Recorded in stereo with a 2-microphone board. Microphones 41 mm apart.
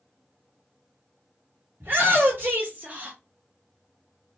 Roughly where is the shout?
Right.